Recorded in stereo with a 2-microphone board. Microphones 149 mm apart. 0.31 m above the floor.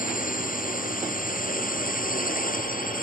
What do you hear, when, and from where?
0.0 s a drone: 65° left (ahead or behind); by 3.0 s 70° left (ahead or behind)